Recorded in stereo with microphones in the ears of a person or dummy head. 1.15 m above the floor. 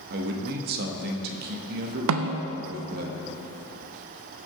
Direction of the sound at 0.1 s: 50° right (ahead or behind).